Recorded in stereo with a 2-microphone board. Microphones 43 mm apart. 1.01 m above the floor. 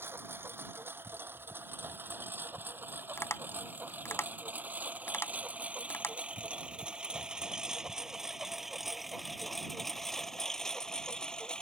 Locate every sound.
0.0 s a lawn mower: 60° right (ahead or behind); by 11.6 s 20° left (ahead or behind)
3.2 s tapping: 75° left (ahead or behind)